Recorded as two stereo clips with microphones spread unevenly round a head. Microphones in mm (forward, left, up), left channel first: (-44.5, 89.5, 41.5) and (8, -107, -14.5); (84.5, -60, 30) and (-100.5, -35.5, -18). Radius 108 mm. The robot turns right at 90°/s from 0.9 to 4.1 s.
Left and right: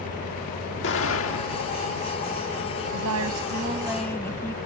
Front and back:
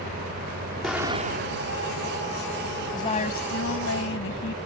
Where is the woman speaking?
80° right; by 4.6 s 25° left.